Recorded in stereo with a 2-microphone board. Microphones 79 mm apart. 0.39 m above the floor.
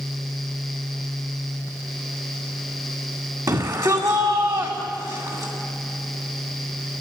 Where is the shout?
55° right (ahead or behind), 2.5 m.